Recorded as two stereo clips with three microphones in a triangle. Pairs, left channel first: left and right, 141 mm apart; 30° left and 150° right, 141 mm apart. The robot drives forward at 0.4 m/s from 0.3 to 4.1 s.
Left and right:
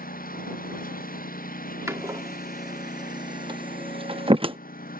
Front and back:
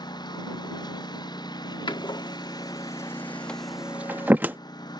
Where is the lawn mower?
90° left.